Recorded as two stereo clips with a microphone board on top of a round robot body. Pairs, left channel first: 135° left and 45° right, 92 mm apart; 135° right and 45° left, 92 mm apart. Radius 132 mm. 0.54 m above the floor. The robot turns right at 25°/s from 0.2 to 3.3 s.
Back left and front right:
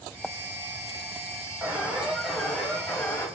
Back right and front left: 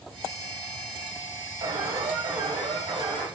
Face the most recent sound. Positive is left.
turn(degrees=70)